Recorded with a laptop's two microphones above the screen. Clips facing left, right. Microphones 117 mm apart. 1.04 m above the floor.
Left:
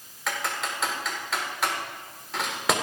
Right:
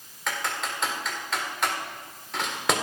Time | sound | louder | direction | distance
0.3 | typing on a keyboard | even | centre (ahead or behind) | 4.5 m